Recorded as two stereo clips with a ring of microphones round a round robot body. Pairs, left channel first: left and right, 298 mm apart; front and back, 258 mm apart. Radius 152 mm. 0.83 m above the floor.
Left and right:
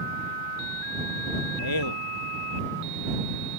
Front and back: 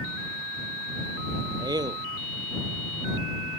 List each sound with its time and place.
1.6 s a man speaking: 105° left